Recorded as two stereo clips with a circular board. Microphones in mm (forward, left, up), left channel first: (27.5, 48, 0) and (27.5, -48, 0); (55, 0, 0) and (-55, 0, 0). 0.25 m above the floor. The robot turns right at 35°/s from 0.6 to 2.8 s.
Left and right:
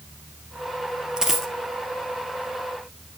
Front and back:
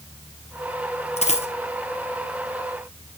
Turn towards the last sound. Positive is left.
turn(degrees=50)